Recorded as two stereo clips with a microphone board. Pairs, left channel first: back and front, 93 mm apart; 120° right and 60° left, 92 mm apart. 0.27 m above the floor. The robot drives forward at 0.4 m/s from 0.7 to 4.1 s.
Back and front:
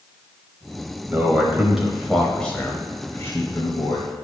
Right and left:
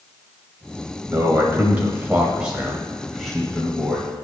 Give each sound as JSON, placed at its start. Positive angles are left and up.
{"t": 1.1, "sound": "a man speaking", "azimuth_deg": 40, "distance_m": 1.0}